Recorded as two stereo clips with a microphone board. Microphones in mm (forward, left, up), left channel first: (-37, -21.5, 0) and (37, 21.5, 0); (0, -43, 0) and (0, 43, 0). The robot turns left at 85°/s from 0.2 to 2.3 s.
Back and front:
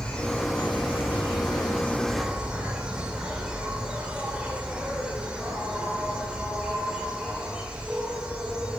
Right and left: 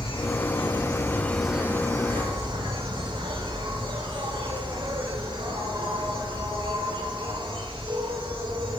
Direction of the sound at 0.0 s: 75° right.